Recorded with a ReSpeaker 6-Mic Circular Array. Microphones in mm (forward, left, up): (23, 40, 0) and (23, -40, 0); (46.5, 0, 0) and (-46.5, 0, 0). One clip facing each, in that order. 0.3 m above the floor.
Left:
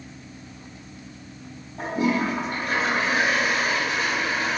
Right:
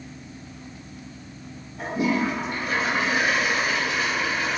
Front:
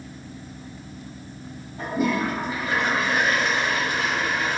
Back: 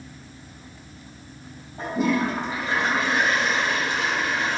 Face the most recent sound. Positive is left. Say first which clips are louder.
# even, back 1 dB
turn(degrees=125)